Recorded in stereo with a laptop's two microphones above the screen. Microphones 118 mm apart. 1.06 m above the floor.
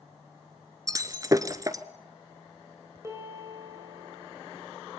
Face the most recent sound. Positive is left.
turn(degrees=-25)  # may be behind; listen again after turning